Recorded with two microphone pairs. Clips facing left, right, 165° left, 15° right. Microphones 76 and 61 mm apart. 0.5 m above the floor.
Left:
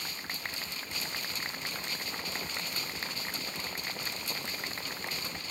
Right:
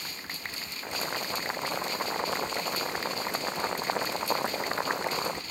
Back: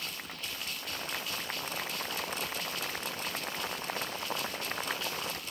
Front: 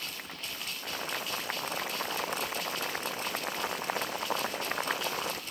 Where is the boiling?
85° right.